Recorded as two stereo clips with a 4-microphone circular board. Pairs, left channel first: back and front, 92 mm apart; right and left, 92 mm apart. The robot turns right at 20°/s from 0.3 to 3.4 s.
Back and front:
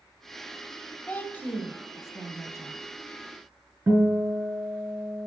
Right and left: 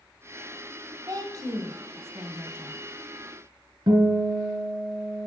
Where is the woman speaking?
115° left, 1.6 m; by 2.8 s 145° left, 1.6 m.